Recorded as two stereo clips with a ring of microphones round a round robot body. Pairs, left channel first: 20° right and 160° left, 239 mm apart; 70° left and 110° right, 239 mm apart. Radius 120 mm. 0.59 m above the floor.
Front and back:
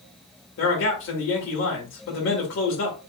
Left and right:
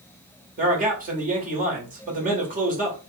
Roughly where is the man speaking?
Ahead right.